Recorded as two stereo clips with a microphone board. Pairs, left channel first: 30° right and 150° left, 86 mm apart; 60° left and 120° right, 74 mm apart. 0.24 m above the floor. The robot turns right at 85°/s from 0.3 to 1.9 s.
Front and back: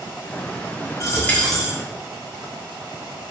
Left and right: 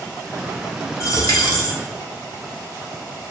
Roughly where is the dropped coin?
Ahead.